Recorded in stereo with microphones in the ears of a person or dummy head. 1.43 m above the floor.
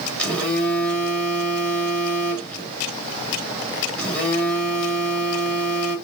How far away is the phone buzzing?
About 2.5 m.